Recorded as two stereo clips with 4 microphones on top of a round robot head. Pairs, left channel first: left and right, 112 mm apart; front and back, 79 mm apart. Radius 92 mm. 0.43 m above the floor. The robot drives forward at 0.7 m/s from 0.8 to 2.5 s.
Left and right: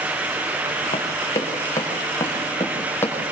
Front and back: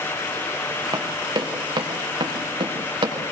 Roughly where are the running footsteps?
Behind left.